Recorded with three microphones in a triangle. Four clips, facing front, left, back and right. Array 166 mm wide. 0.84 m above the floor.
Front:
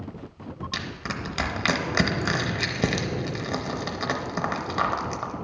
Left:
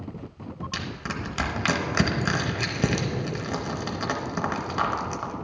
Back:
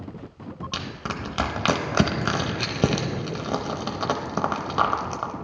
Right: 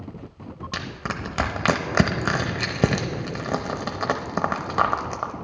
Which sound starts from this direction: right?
Crushing, at 0.7 s.